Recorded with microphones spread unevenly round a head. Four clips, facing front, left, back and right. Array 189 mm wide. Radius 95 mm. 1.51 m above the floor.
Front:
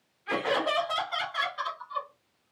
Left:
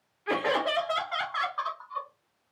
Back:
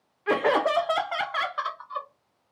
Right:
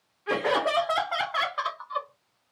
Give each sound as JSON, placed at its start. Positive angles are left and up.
{"t": 0.3, "sound": "laughter", "azimuth_deg": 180, "distance_m": 0.7}